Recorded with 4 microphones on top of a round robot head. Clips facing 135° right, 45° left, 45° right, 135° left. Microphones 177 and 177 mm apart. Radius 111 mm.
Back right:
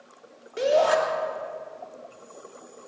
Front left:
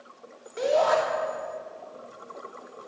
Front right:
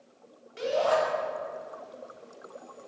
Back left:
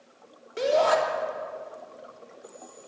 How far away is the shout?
About 2.5 m.